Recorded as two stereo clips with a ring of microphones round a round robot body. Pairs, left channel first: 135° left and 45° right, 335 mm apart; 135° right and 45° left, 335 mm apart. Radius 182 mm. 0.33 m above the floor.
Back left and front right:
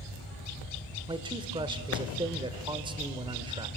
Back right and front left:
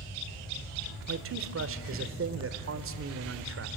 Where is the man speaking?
25° left, 1.2 m.